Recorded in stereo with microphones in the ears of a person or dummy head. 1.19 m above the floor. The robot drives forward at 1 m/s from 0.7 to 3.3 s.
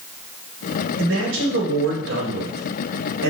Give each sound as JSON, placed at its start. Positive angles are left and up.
{"t": 1.0, "sound": "a man speaking", "side_deg": -70, "distance_m": 4.5}